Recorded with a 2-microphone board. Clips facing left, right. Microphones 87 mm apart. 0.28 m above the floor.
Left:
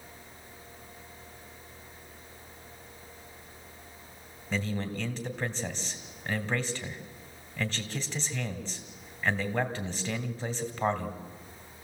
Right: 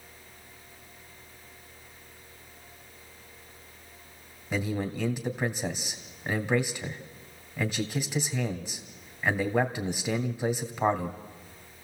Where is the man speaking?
10° right (ahead or behind), 1.8 m.